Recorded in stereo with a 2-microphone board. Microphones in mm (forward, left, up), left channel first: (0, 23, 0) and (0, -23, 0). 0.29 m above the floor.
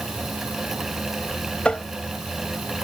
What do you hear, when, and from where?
1.6 s tapping: 25° left (ahead or behind)